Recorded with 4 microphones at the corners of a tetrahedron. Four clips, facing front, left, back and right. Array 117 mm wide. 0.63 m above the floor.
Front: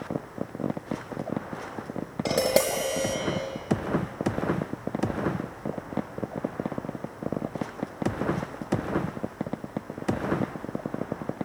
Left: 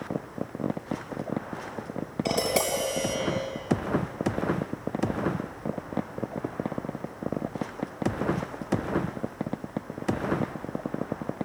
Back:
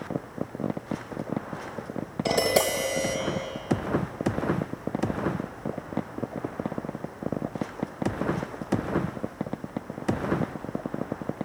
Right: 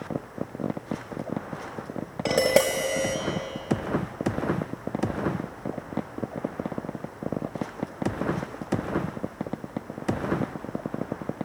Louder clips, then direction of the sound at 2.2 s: Right 6 dB, even; 60° right.